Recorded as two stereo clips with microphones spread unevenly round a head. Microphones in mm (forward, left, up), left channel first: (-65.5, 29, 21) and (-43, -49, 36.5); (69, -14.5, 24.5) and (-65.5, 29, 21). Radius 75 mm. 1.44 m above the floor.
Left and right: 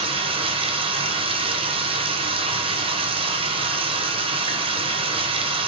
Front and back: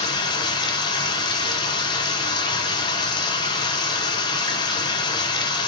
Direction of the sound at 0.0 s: 80° right.